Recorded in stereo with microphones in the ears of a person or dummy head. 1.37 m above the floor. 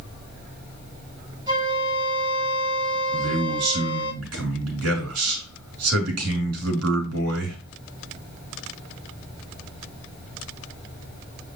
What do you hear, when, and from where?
1.5 s a flute: 20° right (ahead or behind), 6.5 m
3.1 s a man speaking: 85° right, 4 m